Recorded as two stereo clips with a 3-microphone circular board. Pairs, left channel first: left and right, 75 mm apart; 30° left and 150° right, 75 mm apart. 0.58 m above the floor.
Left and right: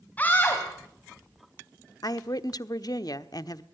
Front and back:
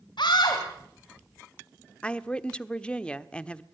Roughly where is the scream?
Ahead.